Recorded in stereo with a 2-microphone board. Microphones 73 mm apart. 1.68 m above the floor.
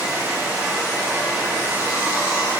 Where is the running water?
40° right (ahead or behind), 1.5 m.